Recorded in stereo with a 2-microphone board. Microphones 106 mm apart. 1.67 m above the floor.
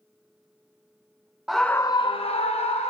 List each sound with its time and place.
1.5 s a scream: 5° right (ahead or behind), 0.6 m; by 2.9 s 80° left, 1.1 m